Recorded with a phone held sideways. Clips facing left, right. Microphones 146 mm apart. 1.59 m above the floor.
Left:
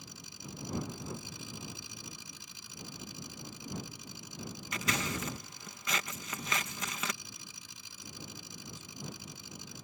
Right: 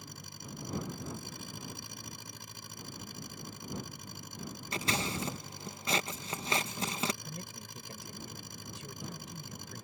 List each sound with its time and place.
0.0 s an engine running: 55° right (ahead or behind)
4.7 s scissors: 30° right (ahead or behind)
7.2 s a man speaking: 80° right